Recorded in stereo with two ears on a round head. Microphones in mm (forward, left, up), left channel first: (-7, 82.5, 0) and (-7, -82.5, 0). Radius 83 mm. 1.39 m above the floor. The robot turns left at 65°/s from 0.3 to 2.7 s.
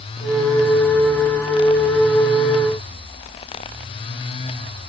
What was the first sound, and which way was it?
Only background noise.